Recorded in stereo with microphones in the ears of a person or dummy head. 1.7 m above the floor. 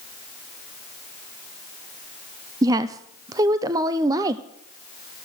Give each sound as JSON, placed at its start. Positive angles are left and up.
{"t": 2.6, "sound": "a woman speaking", "side_deg": -20, "distance_m": 0.6}